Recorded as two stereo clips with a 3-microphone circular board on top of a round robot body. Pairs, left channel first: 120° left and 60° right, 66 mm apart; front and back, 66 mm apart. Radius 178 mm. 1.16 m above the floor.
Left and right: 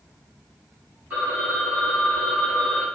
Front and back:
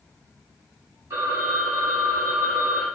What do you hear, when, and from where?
1.1 s a phone ringing: 130° right, 1.6 m